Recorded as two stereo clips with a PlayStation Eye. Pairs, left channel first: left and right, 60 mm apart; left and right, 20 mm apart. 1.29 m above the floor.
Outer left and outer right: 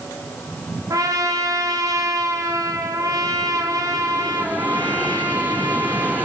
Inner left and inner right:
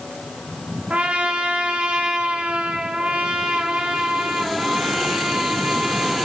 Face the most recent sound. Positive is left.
turn(degrees=-75)  # may be behind; listen again after turning